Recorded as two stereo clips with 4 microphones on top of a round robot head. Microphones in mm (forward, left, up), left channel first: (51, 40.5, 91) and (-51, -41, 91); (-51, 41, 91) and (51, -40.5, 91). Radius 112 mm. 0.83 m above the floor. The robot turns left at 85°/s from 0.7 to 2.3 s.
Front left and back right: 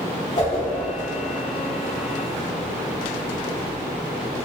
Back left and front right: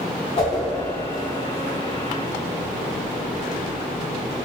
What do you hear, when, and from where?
0.4 s a whoosh: 90° left, 1.0 m